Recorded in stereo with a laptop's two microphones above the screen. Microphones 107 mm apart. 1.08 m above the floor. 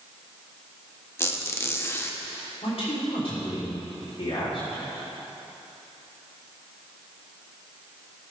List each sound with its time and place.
1.2 s a squeak: 25° left (ahead or behind), 0.6 m
2.6 s a man speaking: 60° left (ahead or behind), 3 m